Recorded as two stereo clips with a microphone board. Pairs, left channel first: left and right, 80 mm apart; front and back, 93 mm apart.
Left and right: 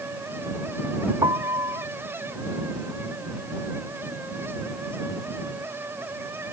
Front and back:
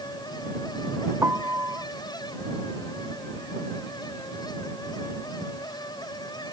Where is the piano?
115° right.